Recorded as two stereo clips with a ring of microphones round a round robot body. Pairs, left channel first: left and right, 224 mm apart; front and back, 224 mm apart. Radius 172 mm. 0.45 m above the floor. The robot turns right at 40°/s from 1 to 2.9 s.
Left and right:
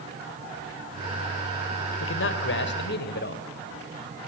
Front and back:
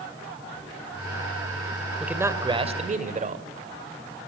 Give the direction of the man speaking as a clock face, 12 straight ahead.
9 o'clock.